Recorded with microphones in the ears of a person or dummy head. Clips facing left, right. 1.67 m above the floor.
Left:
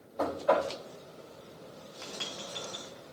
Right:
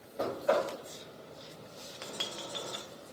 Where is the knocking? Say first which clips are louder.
Left 2 dB; 15° right (ahead or behind), 3 m.